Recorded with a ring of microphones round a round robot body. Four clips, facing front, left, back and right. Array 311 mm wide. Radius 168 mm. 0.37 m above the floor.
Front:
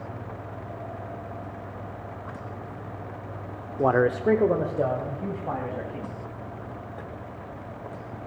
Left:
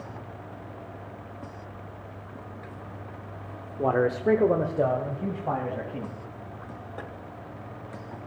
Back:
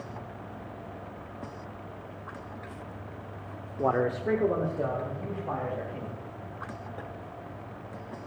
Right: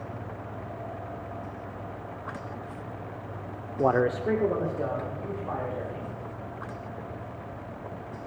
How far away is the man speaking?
About 1.0 m.